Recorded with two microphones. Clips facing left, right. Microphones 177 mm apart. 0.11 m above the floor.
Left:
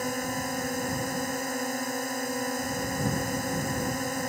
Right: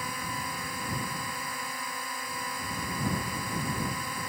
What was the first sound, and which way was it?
A drone, 45° left (ahead or behind).